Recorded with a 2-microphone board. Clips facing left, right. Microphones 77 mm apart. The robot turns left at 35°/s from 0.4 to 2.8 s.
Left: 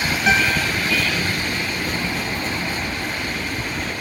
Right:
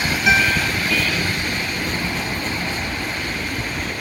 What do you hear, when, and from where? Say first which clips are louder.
0.3 s a guitar: right 1 dB; 30° left (ahead or behind), 2.5 m; by 0.7 s 20° left (ahead or behind), 2.5 m